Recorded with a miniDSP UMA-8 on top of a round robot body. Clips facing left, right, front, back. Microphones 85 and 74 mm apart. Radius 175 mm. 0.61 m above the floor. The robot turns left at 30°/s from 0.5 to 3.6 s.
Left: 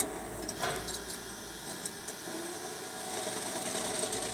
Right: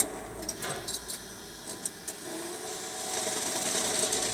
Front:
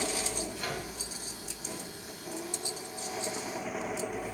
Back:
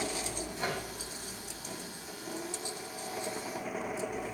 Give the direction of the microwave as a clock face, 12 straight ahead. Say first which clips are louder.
Left 3 dB, back 2 dB; 8 o'clock.